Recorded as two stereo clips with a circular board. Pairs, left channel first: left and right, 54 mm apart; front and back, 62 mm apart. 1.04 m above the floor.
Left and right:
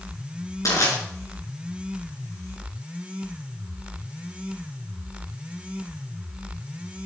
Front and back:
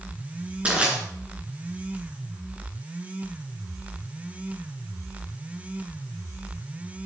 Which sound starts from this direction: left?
Crushing, at 0.7 s.